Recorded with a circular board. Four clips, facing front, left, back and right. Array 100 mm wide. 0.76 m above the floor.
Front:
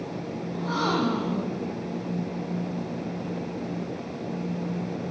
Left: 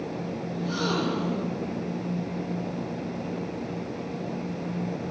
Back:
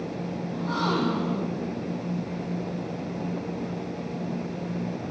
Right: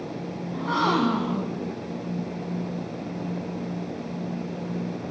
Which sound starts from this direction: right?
A gasp, at 0.5 s.